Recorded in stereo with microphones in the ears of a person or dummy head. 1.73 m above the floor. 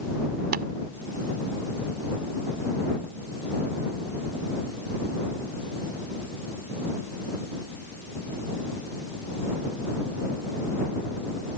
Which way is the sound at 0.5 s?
50° right (ahead or behind).